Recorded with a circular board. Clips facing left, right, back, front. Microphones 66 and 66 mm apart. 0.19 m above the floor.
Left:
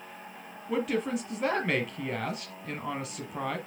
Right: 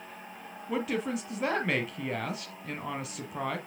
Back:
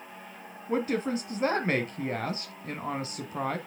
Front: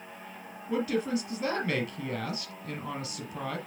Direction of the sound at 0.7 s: Straight behind.